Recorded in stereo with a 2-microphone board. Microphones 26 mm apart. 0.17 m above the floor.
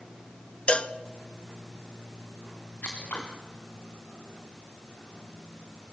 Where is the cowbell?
45° left (ahead or behind), 0.7 m.